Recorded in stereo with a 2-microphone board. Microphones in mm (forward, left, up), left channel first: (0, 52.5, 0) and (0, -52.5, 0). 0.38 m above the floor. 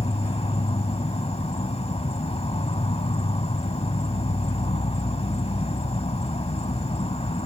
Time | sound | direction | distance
0.0 | an insect | 75° left (ahead or behind) | ?